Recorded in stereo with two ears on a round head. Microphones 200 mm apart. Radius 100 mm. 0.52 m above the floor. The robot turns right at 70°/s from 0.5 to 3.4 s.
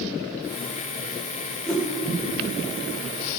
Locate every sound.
1.7 s a whoosh: 5° left (ahead or behind), 1.6 m; by 1.9 s 15° left (ahead or behind), 1.6 m